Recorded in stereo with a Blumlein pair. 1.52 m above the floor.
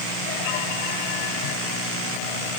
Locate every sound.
Only background noise.